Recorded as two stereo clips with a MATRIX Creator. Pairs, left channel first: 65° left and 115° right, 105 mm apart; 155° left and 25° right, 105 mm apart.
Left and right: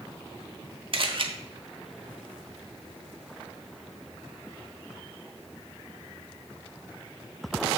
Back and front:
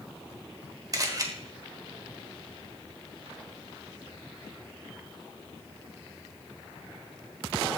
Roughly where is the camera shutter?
Right.